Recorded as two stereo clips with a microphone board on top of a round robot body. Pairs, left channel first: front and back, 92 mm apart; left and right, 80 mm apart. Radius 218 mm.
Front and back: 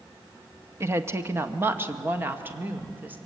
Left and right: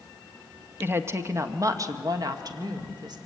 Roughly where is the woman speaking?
Behind right.